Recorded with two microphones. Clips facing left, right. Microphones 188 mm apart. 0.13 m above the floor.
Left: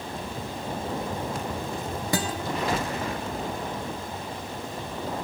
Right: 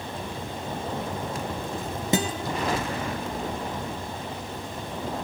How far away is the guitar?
About 1.4 m.